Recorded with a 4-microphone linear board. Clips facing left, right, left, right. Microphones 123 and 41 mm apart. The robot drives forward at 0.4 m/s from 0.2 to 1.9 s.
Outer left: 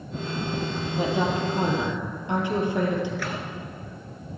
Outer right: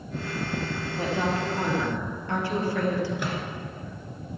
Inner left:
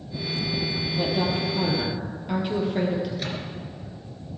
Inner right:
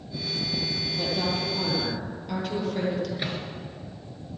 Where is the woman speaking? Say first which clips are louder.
Outer left 3 dB, inner left 3 dB; 15° left (ahead or behind), 3.5 m; by 3.1 s 20° left (ahead or behind), 3.5 m.